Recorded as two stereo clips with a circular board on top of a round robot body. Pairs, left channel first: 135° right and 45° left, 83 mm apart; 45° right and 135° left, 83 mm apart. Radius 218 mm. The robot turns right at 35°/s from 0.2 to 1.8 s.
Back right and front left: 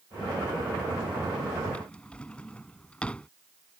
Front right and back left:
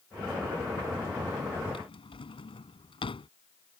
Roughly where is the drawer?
Ahead right.